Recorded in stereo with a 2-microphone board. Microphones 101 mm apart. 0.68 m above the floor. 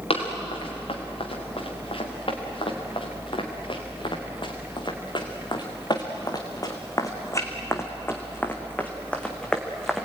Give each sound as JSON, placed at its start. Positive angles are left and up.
{"t": 0.1, "sound": "running footsteps", "side_deg": 75, "distance_m": 5.5}